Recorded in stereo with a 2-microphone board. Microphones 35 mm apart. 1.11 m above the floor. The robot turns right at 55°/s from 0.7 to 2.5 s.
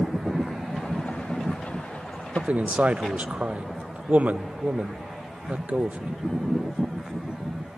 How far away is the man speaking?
About 0.6 m.